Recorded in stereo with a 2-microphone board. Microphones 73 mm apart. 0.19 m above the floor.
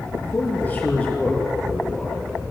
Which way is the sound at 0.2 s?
35° left (ahead or behind).